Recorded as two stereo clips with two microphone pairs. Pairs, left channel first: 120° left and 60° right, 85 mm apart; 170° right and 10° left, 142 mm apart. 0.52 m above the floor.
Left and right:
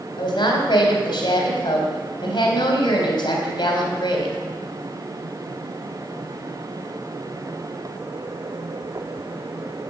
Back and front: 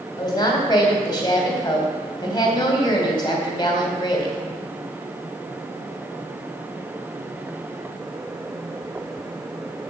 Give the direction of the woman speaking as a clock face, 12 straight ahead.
8 o'clock.